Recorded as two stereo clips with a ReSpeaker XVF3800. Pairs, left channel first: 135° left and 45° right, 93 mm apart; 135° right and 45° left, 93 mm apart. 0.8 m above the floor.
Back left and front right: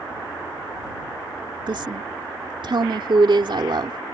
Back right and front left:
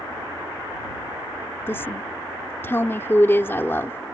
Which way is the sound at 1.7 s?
70° right.